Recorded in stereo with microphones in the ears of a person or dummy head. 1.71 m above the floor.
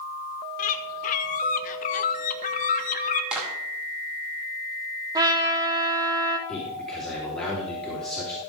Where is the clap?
5° right (ahead or behind), 2.5 m.